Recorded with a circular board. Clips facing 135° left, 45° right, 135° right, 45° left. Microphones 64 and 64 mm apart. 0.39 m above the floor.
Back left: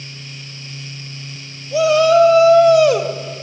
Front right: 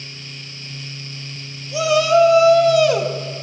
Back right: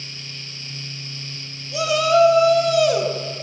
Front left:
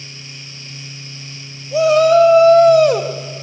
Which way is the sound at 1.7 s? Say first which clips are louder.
Back left 3 dB, front left 7 dB; 90° left.